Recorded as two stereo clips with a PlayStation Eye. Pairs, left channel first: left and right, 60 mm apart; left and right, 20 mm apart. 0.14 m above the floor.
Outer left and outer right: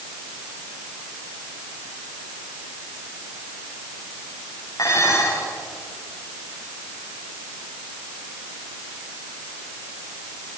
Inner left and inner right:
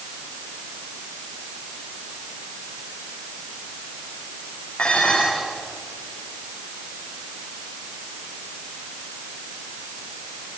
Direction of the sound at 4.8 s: 70° left (ahead or behind).